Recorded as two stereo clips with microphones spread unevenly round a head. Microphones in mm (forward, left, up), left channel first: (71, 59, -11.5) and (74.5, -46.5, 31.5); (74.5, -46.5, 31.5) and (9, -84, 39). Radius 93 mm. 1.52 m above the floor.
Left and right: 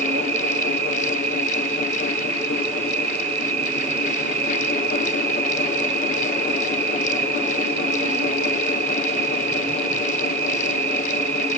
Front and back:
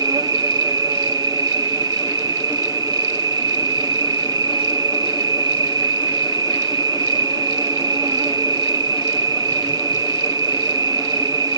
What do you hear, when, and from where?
0.0 s an insect: 135° right